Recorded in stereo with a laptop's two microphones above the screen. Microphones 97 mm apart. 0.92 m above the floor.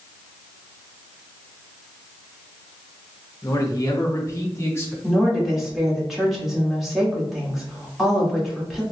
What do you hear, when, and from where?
3.4 s a man speaking: 35° left (ahead or behind), 0.9 m; by 4.9 s 25° left (ahead or behind), 1.6 m
5.0 s a woman speaking: centre (ahead or behind), 1.8 m